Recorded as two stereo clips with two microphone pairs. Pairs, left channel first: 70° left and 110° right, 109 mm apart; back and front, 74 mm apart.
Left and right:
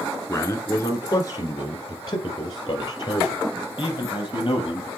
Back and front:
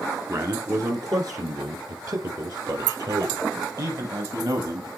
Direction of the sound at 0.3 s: 20° left.